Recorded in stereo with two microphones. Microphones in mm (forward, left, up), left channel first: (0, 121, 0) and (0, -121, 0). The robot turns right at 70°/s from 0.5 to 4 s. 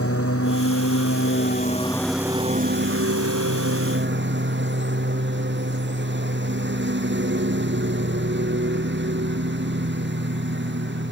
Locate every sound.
0.0 s a lawn mower: 65° left; by 11.1 s 50° right